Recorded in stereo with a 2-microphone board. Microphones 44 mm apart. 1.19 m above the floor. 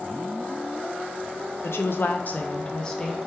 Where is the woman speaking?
80° left, 0.5 m; by 3.3 s 10° left (ahead or behind), 0.9 m.